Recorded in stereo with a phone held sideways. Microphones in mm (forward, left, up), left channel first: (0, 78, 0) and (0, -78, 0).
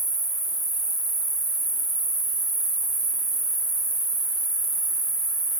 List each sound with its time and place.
0.0 s an insect: 25° right (ahead or behind), 0.9 m